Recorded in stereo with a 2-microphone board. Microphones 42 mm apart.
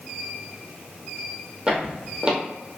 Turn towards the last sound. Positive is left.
turn(degrees=-20)  # may be behind; listen again after turning